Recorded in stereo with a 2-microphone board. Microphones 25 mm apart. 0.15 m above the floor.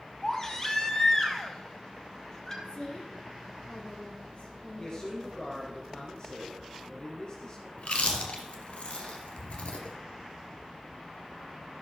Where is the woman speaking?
45° left (ahead or behind), 5.5 m.